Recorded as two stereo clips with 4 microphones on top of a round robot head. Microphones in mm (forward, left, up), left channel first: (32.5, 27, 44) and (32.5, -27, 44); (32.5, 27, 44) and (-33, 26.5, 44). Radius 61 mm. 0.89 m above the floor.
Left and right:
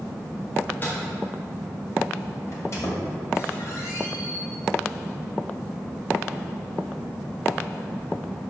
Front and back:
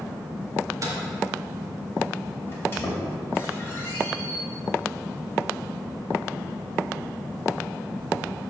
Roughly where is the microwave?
Behind left.